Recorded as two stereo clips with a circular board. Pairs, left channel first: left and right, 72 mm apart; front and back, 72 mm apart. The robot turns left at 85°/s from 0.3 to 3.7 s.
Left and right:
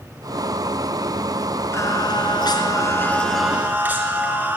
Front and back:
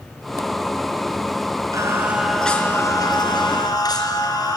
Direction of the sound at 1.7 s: 145° left.